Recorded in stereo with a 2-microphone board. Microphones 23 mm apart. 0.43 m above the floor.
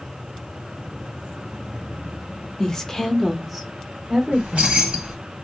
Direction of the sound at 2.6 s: 30° left (ahead or behind).